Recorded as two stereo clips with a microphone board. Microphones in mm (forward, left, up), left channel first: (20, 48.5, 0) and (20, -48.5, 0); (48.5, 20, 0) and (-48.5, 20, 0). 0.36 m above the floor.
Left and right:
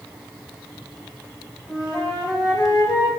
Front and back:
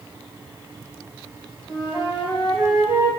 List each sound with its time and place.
1.7 s a flute: 125° left, 1.6 m